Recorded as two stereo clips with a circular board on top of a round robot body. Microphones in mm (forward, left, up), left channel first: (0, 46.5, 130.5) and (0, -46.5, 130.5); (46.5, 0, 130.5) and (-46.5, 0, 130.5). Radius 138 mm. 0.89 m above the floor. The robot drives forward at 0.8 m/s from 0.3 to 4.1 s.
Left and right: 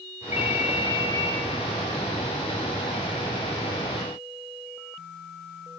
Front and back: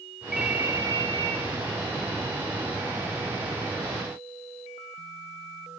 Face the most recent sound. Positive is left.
turn(degrees=170)